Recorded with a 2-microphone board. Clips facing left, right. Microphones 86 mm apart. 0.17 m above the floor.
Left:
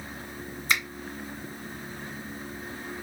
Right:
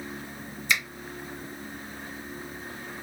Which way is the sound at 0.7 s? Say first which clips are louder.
Even; 40° left (ahead or behind).